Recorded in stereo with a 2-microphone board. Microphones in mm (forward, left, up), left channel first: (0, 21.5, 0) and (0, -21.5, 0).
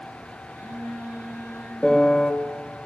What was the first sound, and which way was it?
A phone buzzing, 60° right (ahead or behind).